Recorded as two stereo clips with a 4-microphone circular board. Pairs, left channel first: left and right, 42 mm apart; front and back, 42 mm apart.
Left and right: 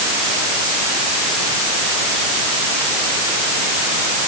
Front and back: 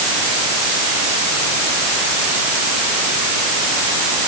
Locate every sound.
Only background noise.